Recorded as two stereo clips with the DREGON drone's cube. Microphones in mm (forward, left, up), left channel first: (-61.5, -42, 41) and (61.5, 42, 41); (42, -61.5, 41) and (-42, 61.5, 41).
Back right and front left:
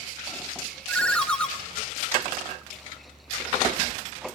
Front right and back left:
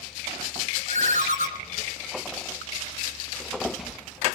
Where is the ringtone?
130° left, 1.7 m.